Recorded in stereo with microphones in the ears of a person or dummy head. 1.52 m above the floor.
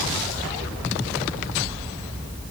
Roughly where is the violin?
I don't hear a violin.